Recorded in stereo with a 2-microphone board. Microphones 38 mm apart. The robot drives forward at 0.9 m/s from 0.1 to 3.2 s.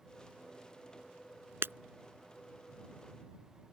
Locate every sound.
1.6 s breaking glass: 80° right